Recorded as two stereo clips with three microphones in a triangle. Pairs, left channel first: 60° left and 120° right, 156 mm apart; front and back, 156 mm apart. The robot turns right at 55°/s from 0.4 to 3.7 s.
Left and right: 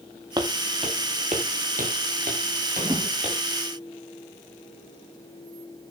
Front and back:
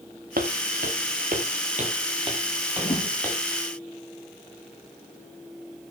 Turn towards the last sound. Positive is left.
turn(degrees=-10)